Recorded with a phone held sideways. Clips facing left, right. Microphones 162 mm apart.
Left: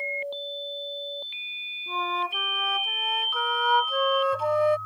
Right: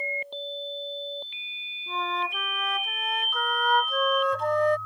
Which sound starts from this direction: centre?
A flute, at 1.9 s.